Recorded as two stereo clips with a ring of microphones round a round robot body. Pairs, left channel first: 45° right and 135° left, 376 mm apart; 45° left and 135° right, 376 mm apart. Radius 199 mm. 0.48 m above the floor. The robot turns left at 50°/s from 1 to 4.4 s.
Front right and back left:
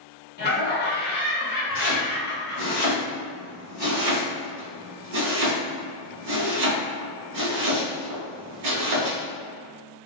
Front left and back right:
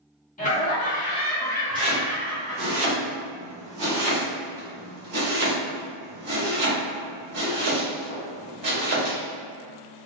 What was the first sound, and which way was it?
Laughter, 5° right.